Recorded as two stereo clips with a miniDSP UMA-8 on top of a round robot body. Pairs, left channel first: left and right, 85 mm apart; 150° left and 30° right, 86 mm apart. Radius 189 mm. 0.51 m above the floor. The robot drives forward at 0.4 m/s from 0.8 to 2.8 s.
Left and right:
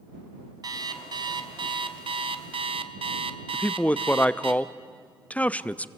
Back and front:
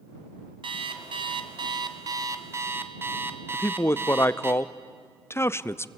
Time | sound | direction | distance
0.6 | an alarm clock | 45° right | 1.1 m
3.5 | a man speaking | 145° left | 0.7 m